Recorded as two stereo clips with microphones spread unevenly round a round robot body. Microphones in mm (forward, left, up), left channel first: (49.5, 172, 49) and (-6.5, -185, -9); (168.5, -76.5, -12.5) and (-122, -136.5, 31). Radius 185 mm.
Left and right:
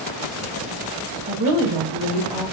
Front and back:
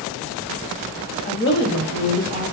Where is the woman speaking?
40° right, 1.4 m; by 2.4 s 15° right, 2.5 m.